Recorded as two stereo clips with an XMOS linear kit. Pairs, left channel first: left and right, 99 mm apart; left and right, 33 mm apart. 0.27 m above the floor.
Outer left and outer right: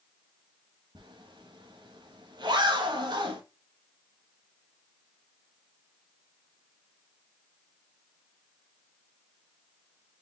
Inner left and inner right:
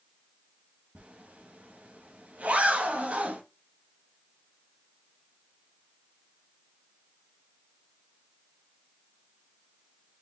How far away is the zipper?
About 0.7 m.